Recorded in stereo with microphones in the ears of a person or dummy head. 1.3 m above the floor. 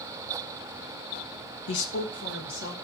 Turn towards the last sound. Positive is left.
turn(degrees=65)  # may be behind; listen again after turning